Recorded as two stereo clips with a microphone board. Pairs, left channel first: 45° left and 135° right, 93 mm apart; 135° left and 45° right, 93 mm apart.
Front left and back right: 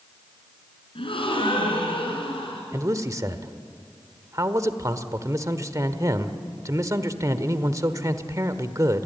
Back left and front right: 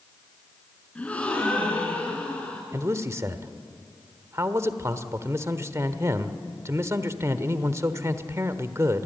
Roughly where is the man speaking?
Right.